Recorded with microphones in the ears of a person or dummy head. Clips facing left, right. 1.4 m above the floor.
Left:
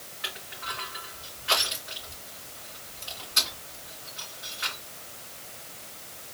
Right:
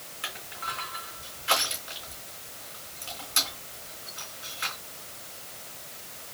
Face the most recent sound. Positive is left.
turn(degrees=-40)  # may be behind; listen again after turning